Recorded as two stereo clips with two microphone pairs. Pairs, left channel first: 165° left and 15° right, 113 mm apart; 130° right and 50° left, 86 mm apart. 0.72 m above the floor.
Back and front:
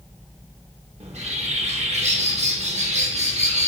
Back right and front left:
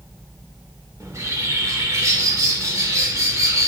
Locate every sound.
1.0 s a bird: 5° right, 0.8 m